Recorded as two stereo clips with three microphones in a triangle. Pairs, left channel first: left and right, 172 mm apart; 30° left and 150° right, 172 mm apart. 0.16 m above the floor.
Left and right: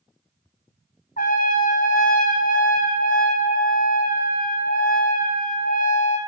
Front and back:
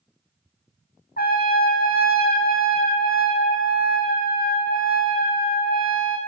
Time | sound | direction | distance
1.2 | a trumpet | 55° left | 1.4 m